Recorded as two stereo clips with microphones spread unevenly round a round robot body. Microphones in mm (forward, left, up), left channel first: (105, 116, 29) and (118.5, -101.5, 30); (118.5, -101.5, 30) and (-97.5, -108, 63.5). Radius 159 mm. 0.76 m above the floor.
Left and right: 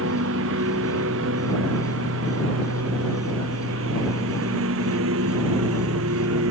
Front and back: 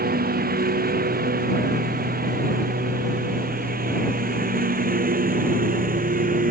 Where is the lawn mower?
135° right; by 6.5 s 130° right.